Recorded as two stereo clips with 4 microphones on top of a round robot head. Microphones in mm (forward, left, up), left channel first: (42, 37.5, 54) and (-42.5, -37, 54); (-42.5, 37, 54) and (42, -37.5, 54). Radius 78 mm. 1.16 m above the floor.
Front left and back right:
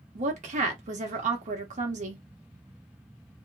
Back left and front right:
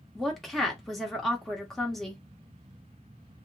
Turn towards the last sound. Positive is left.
turn(degrees=-135)